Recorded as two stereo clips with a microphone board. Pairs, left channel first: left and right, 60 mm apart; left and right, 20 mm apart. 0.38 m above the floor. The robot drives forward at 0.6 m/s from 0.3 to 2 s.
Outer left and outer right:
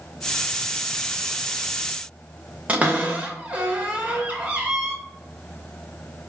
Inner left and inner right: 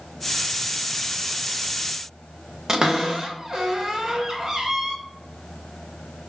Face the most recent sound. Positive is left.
turn(degrees=-25)  # may be behind; listen again after turning